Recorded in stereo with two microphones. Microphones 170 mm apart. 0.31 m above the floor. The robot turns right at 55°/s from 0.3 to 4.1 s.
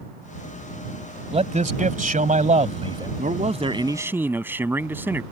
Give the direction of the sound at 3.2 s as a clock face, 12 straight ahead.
2 o'clock.